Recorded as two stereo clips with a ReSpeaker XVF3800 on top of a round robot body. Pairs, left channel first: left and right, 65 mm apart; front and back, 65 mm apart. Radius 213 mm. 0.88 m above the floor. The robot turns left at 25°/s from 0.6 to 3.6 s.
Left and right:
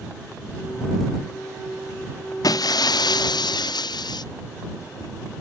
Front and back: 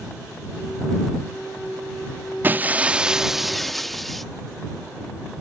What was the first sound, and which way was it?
Breaking glass, 115° left.